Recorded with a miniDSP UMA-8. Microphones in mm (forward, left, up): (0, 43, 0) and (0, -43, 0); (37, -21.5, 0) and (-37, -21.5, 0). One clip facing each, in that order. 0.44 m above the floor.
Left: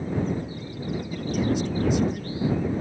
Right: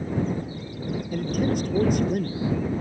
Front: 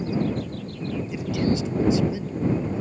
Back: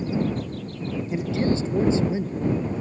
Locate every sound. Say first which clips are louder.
1.1 s a man speaking: right 1 dB, back 1 dB; 125° right